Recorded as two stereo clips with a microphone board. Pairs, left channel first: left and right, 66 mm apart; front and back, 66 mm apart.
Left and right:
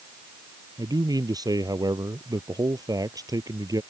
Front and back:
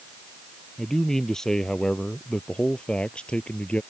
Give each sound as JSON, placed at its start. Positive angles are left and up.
{"t": 0.8, "sound": "a man speaking", "azimuth_deg": -85}